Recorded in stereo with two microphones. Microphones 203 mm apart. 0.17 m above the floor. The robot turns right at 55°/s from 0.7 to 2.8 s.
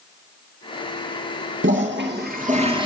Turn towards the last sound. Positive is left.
turn(degrees=-25)